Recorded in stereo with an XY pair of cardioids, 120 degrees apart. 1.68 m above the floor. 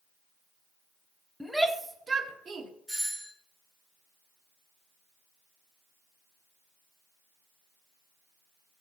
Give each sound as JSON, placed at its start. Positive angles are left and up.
{"t": 1.4, "sound": "a shout", "azimuth_deg": 0, "distance_m": 1.2}
{"t": 2.9, "sound": "a doorbell", "azimuth_deg": -5, "distance_m": 1.2}